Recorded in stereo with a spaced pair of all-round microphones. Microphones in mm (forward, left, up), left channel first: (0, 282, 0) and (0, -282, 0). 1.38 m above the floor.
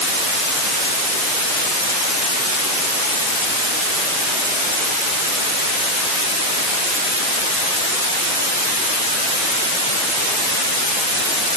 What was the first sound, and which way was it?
Only background noise.